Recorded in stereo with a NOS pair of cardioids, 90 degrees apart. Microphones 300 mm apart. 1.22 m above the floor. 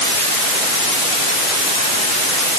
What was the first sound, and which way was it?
Only background noise.